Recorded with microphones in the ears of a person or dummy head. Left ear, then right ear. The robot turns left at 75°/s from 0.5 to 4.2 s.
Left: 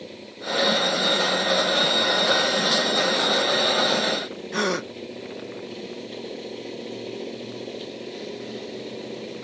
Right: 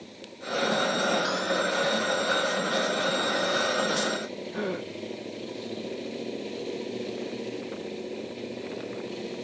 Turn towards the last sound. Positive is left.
turn(degrees=60)  # may be behind; listen again after turning